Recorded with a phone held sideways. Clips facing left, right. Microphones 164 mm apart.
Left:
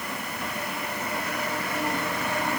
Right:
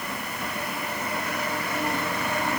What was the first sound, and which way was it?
Only background noise.